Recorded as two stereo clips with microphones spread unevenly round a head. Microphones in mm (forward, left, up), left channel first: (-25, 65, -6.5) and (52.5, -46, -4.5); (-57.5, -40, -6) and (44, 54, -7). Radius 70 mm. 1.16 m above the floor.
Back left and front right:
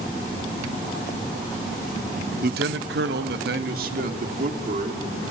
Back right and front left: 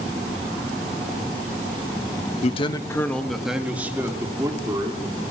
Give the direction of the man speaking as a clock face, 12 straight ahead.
3 o'clock.